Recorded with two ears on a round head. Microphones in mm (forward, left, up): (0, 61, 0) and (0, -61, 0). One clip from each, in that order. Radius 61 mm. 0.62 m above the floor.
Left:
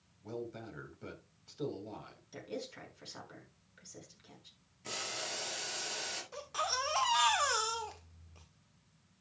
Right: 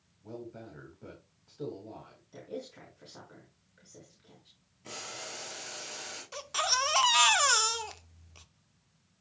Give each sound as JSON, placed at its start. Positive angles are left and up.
{"t": 0.2, "sound": "a man speaking", "side_deg": 55, "distance_m": 4.0}
{"t": 2.3, "sound": "a woman speaking", "side_deg": 60, "distance_m": 6.0}
{"t": 4.8, "sound": "boiling", "side_deg": 30, "distance_m": 6.0}
{"t": 6.3, "sound": "a baby crying", "side_deg": -55, "distance_m": 1.0}